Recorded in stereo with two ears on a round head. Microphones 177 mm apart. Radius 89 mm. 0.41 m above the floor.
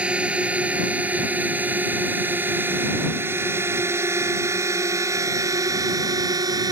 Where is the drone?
5° right (ahead or behind); by 6.7 s 20° right (ahead or behind).